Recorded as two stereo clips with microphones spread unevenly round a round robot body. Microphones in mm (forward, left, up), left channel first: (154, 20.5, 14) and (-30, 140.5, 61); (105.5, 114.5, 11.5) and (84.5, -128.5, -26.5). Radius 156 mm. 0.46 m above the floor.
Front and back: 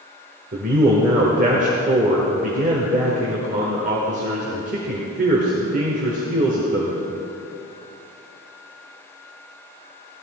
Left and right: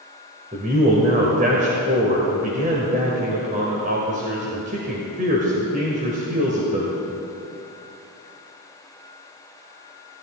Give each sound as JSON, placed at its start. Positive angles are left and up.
{"t": 0.5, "sound": "a man speaking", "azimuth_deg": -150, "distance_m": 1.4}